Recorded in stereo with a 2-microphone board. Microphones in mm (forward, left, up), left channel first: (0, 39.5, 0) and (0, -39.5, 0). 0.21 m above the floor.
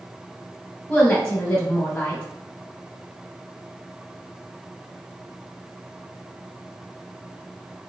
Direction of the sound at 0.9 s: 20° left (ahead or behind).